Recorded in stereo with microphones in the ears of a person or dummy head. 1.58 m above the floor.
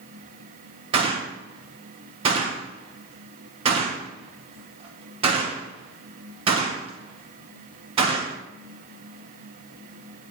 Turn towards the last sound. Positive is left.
turn(degrees=-30)  # may be behind; listen again after turning